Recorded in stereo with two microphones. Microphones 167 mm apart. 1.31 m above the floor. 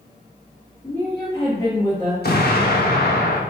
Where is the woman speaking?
15° left (ahead or behind), 2.5 m.